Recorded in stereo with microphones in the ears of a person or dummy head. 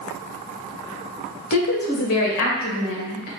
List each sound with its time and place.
1.5 s a woman speaking: 50° left (ahead or behind), 1.4 m